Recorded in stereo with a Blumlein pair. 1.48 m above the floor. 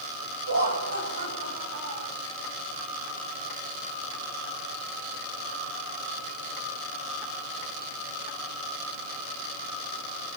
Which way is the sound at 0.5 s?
70° right.